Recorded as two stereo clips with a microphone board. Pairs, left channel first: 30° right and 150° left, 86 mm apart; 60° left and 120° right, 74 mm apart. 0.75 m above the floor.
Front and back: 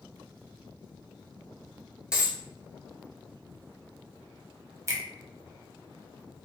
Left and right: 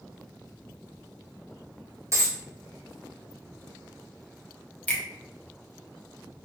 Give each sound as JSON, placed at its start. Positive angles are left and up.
{"t": 2.1, "sound": "a dropped coin", "azimuth_deg": -135, "distance_m": 0.9}
{"t": 4.9, "sound": "a finger snap", "azimuth_deg": 120, "distance_m": 0.7}